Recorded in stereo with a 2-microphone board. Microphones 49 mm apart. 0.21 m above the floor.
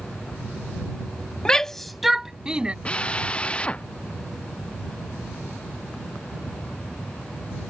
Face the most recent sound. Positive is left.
turn(degrees=20)  # may be behind; listen again after turning